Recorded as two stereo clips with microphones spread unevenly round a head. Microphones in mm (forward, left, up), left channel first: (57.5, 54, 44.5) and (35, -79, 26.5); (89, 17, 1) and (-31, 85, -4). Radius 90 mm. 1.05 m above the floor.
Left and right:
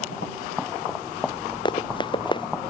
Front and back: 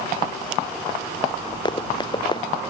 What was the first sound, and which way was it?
Running footsteps, 25° left.